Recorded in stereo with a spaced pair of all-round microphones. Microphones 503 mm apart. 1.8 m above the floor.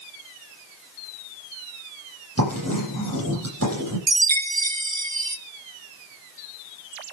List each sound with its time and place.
2.4 s writing: 30° right (ahead or behind), 9 m
4.1 s a chime: 60° right (ahead or behind), 0.6 m